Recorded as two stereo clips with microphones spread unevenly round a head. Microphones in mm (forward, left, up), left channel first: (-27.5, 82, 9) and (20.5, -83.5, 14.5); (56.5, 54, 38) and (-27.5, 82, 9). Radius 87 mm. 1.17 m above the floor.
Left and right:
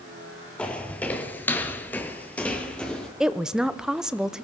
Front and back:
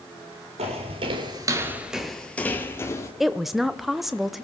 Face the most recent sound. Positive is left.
turn(degrees=-160)